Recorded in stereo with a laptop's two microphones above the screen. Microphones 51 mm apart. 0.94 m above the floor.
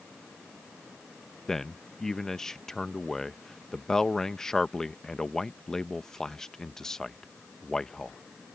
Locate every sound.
1.5 s a man speaking: 10° left (ahead or behind)